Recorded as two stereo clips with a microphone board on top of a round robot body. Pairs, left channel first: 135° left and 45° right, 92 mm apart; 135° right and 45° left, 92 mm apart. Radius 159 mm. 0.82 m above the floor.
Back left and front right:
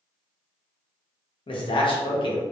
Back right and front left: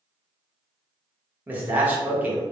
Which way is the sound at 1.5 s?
115° left.